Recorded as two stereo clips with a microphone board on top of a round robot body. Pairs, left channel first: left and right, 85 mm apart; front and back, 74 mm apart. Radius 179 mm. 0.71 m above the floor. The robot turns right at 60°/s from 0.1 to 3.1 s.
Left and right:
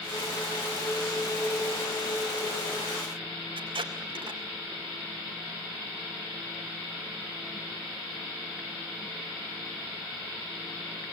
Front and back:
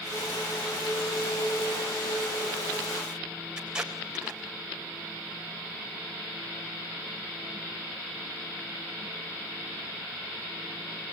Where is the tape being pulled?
100° right, 4 m.